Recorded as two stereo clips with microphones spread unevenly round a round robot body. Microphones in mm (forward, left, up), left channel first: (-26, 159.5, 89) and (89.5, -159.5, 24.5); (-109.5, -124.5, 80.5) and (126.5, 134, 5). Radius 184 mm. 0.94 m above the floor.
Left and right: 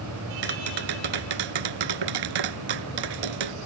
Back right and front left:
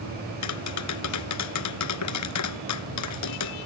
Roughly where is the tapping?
Right.